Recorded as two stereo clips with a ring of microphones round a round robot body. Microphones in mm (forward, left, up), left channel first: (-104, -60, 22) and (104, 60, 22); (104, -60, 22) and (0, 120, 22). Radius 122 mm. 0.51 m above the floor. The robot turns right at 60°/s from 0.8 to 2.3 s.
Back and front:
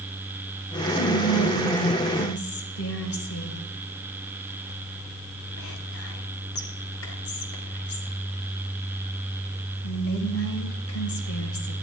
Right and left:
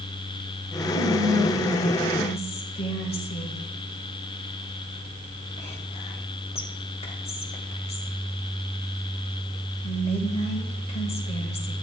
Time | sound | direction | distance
0.9 | whispering | 155° left | 2 m